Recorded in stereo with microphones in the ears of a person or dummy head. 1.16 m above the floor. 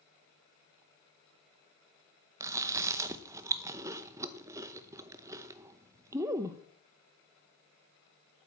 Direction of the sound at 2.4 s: 15° right (ahead or behind).